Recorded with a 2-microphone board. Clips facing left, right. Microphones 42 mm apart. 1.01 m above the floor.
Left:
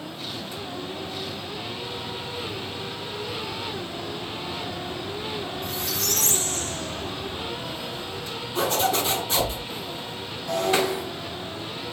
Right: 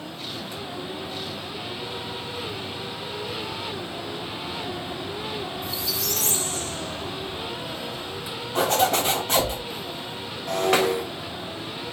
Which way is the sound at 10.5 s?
65° right (ahead or behind).